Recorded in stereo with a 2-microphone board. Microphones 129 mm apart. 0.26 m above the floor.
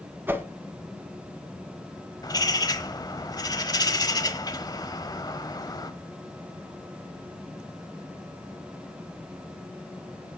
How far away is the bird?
About 1.0 m.